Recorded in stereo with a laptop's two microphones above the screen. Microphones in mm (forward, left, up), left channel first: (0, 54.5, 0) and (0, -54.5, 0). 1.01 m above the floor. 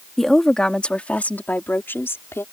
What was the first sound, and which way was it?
A woman speaking, centre (ahead or behind).